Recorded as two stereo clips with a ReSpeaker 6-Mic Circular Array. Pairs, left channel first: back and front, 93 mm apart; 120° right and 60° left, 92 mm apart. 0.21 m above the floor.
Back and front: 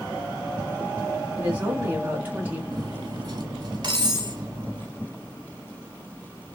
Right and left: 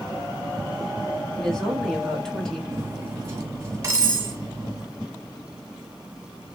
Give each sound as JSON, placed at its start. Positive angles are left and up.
{"t": 1.4, "sound": "a woman speaking", "azimuth_deg": -45, "distance_m": 1.1}
{"t": 2.7, "sound": "cutlery clinking", "azimuth_deg": 10, "distance_m": 1.2}